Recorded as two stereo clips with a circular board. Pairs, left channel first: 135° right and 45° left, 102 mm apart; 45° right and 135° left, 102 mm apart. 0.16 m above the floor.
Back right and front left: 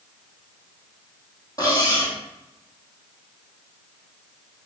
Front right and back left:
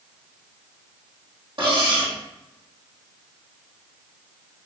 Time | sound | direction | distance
1.6 | cutlery clinking | 175° left | 2.5 m